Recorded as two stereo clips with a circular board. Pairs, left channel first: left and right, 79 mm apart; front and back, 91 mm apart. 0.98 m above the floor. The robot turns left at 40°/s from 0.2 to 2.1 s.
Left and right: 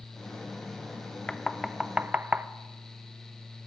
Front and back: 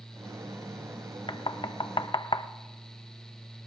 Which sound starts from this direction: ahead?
Knocking, at 1.3 s.